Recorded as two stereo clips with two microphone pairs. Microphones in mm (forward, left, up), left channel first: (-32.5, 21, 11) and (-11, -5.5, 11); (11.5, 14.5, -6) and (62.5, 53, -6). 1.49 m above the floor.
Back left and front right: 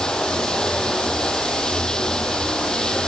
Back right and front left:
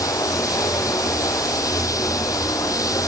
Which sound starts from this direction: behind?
Running water, at 0.0 s.